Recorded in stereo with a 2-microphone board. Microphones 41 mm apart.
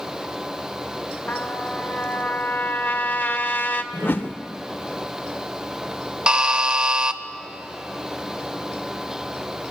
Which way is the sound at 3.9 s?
65° left (ahead or behind).